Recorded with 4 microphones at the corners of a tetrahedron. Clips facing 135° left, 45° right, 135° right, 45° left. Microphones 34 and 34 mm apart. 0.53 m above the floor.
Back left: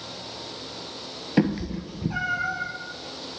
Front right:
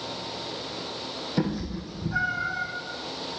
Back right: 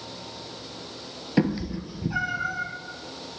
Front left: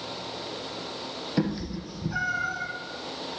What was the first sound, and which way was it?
A cat meowing, 170° left.